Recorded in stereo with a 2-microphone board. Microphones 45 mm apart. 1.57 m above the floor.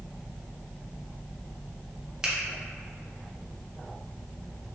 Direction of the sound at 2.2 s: 10° right (ahead or behind).